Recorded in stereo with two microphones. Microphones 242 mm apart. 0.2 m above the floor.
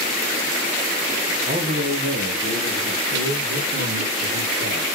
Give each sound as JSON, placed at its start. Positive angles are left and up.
{"t": 1.5, "sound": "a man speaking", "side_deg": -35, "distance_m": 1.9}